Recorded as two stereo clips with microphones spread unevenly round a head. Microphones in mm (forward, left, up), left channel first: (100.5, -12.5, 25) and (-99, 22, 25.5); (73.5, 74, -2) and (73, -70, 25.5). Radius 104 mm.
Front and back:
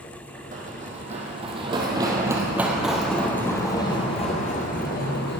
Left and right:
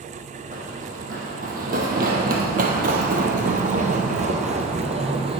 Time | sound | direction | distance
0.5 | running footsteps | 135° right | 2.5 m